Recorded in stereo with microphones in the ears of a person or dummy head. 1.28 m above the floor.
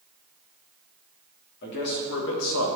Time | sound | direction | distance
1.6 | a man speaking | 50° left (ahead or behind) | 2.5 m